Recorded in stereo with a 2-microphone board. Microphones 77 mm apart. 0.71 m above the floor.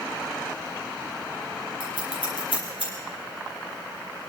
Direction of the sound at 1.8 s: 85° left.